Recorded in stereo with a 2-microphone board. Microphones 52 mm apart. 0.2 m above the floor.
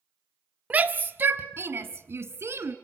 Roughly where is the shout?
Right.